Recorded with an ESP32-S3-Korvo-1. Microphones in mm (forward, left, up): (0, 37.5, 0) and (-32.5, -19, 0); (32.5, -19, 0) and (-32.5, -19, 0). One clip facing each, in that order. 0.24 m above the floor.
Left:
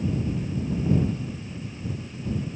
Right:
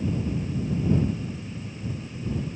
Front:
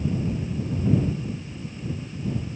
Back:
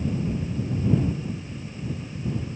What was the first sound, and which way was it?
Only background noise.